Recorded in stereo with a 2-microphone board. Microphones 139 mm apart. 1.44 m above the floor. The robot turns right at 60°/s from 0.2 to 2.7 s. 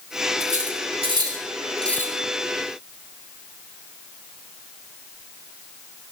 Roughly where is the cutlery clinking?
Right.